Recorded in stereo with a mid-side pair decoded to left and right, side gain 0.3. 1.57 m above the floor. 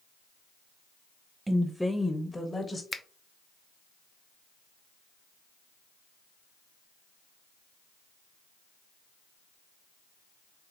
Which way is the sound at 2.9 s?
45° left.